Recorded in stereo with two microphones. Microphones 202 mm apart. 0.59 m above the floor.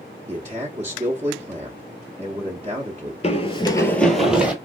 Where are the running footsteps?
35° left (ahead or behind), 0.7 m; by 4.5 s 10° right (ahead or behind), 1.0 m.